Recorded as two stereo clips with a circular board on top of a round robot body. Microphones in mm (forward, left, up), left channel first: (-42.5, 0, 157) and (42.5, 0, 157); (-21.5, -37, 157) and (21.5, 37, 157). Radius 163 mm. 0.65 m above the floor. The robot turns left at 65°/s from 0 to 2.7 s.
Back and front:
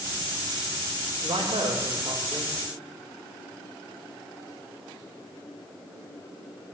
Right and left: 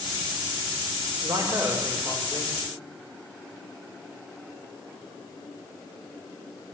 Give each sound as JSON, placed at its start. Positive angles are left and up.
{"t": 1.2, "sound": "a man speaking", "azimuth_deg": 20, "distance_m": 3.0}